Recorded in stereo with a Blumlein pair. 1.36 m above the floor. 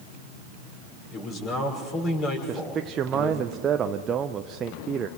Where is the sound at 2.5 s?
25° right, 0.6 m.